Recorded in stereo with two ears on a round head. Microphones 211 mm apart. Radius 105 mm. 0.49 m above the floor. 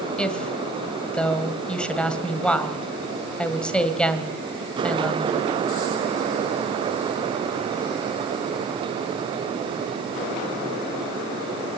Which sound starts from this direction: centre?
A woman speaking, at 0.2 s.